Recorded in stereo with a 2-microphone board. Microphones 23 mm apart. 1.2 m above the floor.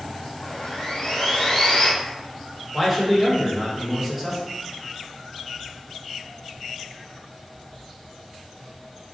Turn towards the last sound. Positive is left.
turn(degrees=-5)  # may be behind; listen again after turning